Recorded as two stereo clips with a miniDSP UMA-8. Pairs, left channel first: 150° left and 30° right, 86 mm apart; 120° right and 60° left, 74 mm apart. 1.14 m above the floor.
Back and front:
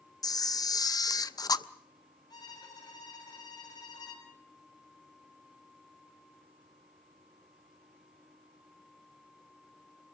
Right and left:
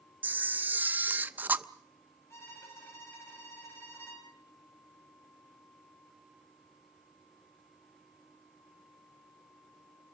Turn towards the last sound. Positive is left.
turn(degrees=-170)